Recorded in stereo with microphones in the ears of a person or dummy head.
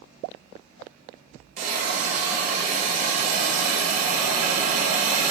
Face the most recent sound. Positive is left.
turn(degrees=-50)  # may be behind; listen again after turning